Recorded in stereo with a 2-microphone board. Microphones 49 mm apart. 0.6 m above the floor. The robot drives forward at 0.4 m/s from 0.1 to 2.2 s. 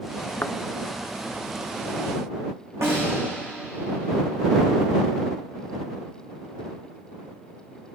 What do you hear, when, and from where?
0.4 s a thud: 55° left (ahead or behind), 0.8 m
2.8 s a snare drum: 75° right (ahead or behind), 8 m